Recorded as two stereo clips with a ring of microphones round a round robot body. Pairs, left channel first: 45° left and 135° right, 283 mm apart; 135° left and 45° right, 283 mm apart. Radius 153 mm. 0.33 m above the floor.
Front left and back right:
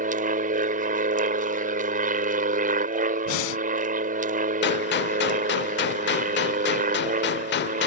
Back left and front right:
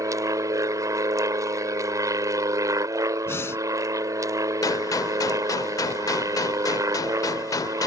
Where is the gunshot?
65° left.